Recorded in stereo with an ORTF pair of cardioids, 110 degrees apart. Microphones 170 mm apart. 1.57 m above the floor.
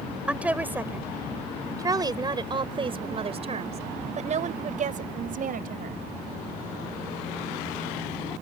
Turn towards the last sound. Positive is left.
turn(degrees=-60)